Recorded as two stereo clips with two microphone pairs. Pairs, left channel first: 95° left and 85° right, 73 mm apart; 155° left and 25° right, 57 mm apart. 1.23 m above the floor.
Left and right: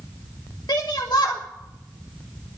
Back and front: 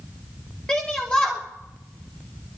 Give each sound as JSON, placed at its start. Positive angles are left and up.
{"t": 0.7, "sound": "a shout", "azimuth_deg": 85, "distance_m": 1.3}